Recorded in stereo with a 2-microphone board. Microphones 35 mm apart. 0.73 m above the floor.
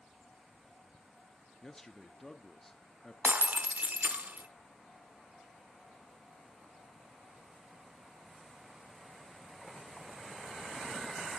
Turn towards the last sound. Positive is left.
turn(degrees=-55)  # may be behind; listen again after turning